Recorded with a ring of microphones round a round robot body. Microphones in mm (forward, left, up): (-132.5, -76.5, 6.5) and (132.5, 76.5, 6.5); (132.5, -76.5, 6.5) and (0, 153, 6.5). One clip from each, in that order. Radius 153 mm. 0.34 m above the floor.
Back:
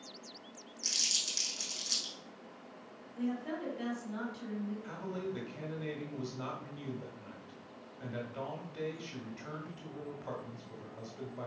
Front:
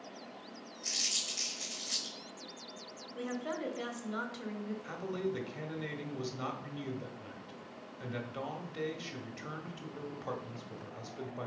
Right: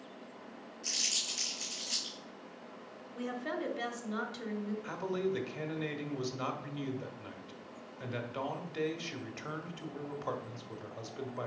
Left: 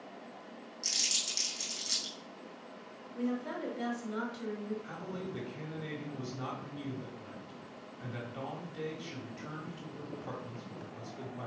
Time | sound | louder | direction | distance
0.8 | crumpling | back 2 dB, left 1 dB | 160° left | 4 m
3.1 | a woman speaking | even, even | 5° right | 1.6 m
4.8 | a man speaking | front 5 dB, right 7 dB | 35° right | 1.3 m